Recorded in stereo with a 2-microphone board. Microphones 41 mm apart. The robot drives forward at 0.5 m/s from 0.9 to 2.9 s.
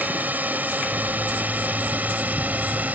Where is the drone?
45° right (ahead or behind).